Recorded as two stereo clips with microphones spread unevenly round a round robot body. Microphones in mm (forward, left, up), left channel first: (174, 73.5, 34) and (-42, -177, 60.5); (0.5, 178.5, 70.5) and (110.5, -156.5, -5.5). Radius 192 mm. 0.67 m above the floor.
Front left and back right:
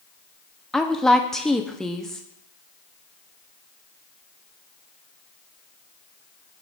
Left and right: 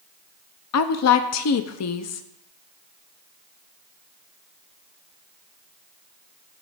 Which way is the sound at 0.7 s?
130° left.